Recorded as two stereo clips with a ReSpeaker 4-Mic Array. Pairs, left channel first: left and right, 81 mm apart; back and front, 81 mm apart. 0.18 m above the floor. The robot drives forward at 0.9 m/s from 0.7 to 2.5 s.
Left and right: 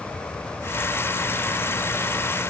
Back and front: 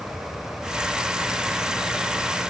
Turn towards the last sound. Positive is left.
No sound to turn to.